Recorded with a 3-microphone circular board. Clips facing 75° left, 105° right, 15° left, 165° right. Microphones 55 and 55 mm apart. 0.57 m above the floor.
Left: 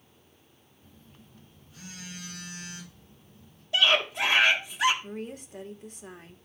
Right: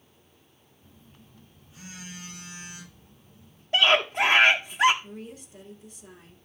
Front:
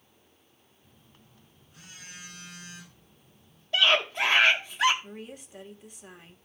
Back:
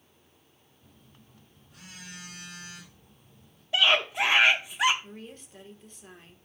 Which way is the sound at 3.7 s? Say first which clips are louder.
Right 3 dB, even; 90° right.